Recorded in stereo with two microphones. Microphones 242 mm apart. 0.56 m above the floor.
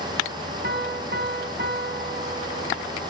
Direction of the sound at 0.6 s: 45° right (ahead or behind).